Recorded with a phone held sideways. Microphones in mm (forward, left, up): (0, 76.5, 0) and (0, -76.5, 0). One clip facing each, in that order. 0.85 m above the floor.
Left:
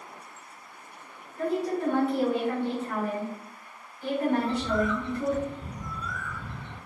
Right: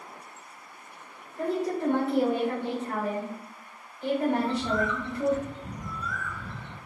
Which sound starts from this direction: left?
A bird, at 4.4 s.